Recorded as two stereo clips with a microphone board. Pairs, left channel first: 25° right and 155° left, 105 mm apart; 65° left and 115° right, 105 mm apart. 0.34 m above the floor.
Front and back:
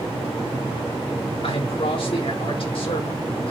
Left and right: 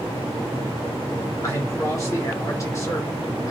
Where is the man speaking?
5° left, 4 m.